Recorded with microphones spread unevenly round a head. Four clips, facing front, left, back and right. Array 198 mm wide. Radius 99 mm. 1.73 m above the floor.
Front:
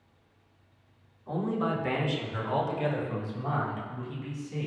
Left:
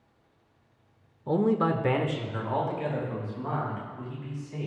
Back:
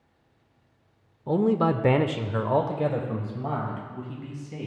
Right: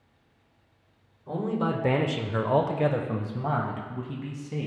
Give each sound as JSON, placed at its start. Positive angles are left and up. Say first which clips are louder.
{"t": 1.3, "sound": "a man speaking", "louder": "left 4 dB, back 7 dB", "azimuth_deg": 150, "distance_m": 0.7}